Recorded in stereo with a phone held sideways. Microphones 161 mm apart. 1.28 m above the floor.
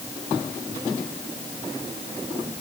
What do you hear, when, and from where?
Only background noise.